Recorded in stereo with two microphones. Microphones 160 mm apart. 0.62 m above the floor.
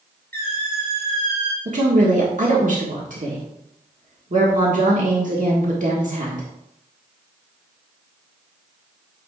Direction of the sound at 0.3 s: 80° right.